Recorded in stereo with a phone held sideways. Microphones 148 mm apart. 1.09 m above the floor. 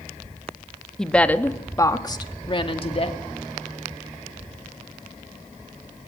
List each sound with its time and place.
1.0 s a woman speaking: 5° left (ahead or behind), 1.4 m; by 3.2 s 45° left (ahead or behind), 2 m